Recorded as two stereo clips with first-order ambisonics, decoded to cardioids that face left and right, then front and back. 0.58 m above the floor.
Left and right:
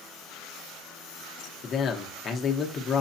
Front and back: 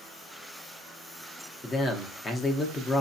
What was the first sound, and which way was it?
A man speaking, 60° left.